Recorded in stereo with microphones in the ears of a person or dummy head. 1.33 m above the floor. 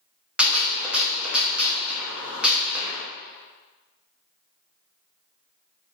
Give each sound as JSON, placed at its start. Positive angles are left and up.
{"t": 0.4, "sound": "a gunshot", "side_deg": -5, "distance_m": 0.7}